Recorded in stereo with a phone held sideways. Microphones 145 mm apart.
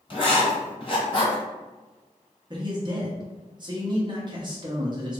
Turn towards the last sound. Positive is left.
turn(degrees=-35)  # may be behind; listen again after turning